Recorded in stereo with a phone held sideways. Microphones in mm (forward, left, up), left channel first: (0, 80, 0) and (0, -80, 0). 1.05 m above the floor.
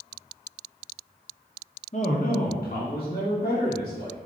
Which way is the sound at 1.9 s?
45° left (ahead or behind).